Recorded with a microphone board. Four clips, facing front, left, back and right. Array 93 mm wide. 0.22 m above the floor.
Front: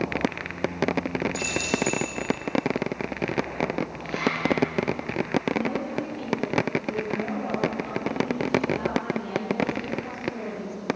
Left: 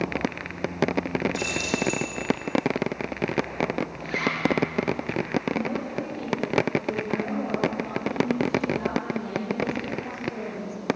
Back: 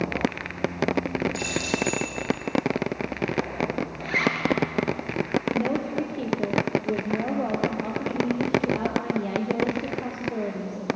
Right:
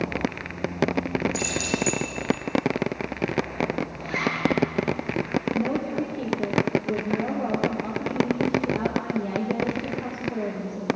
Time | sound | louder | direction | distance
1.3 | keys jangling | right 1 dB, even | 85° left | 5.5 m
4.0 | a zipper | right 1 dB, back 3 dB | straight behind | 4 m
5.5 | a woman speaking | right 3 dB, back 2 dB | 160° right | 5.5 m